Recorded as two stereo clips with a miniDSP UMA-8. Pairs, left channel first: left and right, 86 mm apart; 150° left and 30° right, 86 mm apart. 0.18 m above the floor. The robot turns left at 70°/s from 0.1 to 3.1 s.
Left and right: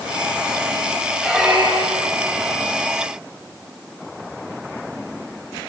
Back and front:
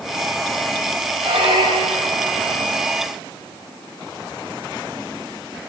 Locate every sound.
1.2 s a squeak: 5° left, 5 m; by 2.1 s 60° right, 5 m